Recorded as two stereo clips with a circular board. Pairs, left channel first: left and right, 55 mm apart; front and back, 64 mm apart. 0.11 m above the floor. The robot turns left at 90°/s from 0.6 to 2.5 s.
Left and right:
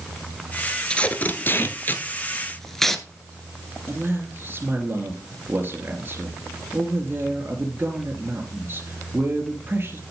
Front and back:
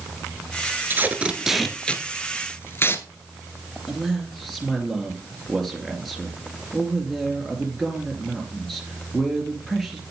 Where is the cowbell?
No cowbell in this recording.